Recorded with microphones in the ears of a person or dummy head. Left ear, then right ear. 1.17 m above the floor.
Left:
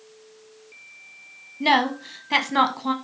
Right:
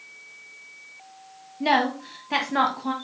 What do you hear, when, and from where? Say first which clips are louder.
1.6 s a woman speaking: left 2 dB; 20° left (ahead or behind), 1.0 m